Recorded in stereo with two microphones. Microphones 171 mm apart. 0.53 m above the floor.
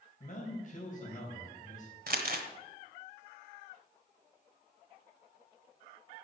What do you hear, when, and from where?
0.2 s a man speaking: 50° left (ahead or behind), 3 m
2.1 s crumpling: 60° right (ahead or behind), 1.2 m